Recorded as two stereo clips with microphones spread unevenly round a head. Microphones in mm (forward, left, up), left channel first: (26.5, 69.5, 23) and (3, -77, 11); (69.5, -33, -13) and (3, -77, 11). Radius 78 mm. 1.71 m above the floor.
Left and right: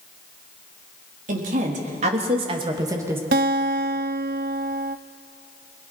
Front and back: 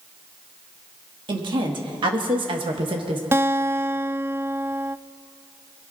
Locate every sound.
1.3 s a woman speaking: 135° right, 4 m; by 3.2 s 175° right, 2.5 m
3.3 s a guitar: 115° right, 0.6 m